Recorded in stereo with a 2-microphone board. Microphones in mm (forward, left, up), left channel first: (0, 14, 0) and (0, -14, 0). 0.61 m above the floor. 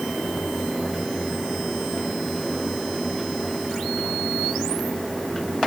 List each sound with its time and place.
Only background noise.